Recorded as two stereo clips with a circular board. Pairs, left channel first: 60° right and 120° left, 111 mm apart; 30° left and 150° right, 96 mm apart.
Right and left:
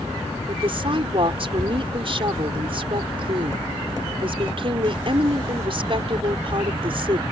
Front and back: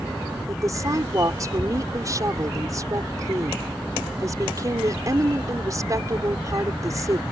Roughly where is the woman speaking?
Behind left.